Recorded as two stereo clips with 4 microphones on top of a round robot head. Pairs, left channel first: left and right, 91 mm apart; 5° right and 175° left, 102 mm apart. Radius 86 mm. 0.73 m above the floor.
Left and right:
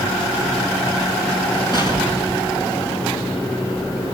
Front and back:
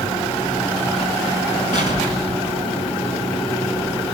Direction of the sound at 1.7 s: 25° right.